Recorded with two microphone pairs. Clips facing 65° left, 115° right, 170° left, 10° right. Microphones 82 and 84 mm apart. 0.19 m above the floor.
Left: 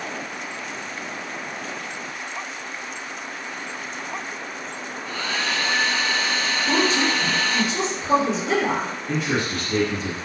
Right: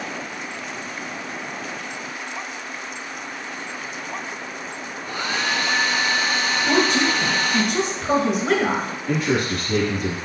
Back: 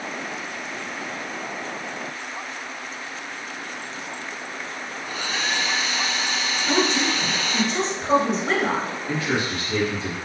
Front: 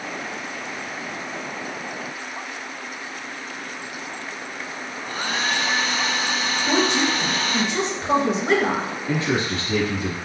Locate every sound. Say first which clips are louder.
5.0 s a hair dryer: right 2 dB, front 3 dB; 45° right, 0.9 m
6.6 s a woman speaking: right 2 dB, front 1 dB; 95° right, 2.5 m
9.1 s a man speaking: right 4 dB, front 3 dB; 75° right, 2.5 m